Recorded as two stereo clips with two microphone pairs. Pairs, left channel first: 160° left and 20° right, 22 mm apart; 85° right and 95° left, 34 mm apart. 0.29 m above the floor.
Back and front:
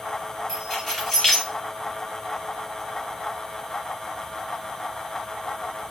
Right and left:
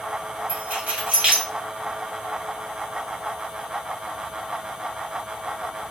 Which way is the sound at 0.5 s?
95° left.